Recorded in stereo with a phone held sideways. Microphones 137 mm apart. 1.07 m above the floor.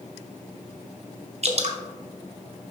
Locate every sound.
1.4 s dripping: 50° right (ahead or behind), 0.9 m